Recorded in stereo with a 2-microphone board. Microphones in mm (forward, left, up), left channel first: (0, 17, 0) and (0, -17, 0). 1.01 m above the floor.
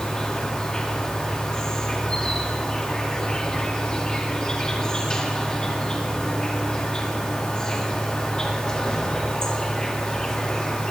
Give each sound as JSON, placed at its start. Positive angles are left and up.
{"t": 0.0, "sound": "an insect", "side_deg": 20, "distance_m": 2.0}